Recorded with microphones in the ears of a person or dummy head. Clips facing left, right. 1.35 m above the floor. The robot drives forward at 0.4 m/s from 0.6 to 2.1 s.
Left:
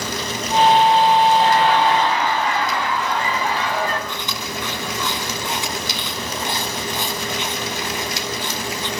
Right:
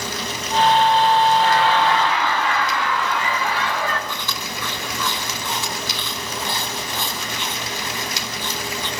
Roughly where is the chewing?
Left.